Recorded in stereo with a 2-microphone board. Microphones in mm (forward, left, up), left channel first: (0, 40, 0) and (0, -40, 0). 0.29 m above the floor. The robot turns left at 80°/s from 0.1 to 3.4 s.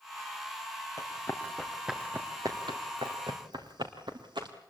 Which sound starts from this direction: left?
Running footsteps, at 1.0 s.